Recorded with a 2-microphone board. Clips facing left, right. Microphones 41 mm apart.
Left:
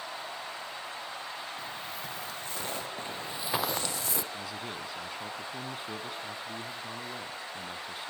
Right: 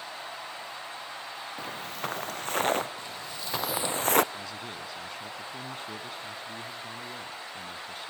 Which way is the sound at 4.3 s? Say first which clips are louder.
Even; 10° left (ahead or behind).